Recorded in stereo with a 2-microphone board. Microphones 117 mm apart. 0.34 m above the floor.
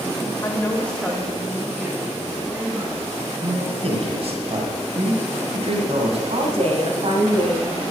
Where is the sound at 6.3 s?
60° right (ahead or behind), 2 m.